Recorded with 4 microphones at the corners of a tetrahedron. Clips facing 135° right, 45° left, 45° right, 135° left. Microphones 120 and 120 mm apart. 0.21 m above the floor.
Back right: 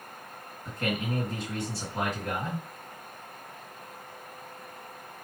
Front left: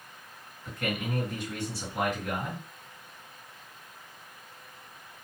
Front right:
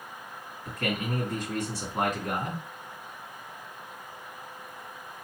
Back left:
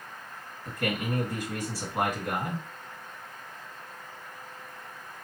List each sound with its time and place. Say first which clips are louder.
0.7 s a man speaking: back right 2 dB, back left 1 dB; 155° right, 1.7 m